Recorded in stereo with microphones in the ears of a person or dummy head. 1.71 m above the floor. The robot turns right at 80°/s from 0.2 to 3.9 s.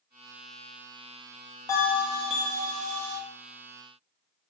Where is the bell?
160° left, 0.6 m; by 3.2 s 80° right, 0.6 m.